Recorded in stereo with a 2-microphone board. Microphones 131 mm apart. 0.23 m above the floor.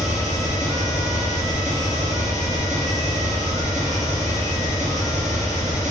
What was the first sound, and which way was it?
An engine running, 75° right (ahead or behind).